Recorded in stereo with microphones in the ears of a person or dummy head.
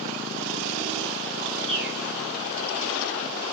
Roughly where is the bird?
Centre.